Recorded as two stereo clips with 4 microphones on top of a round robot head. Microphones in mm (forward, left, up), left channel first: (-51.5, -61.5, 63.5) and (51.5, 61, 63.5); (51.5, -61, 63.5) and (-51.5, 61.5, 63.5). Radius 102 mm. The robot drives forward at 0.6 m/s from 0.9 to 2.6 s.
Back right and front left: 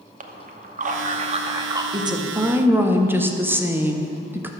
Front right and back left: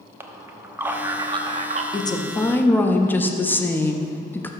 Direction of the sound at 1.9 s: Straight ahead.